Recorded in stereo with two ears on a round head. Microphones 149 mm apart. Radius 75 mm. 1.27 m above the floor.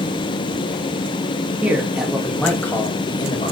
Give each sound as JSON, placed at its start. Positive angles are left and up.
{"t": 1.6, "sound": "a man speaking", "side_deg": -10, "distance_m": 2.0}